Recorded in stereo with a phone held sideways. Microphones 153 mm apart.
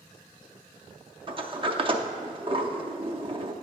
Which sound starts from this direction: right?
A sliding door, at 1.3 s.